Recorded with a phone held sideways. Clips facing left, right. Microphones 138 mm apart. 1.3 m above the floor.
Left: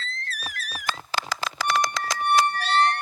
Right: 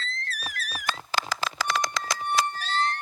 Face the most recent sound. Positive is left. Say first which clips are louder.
# left 5 dB
turn(degrees=80)